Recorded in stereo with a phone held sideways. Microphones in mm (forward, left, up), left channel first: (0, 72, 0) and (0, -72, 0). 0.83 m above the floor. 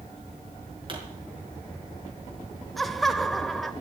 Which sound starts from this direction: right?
A pop, at 0.9 s.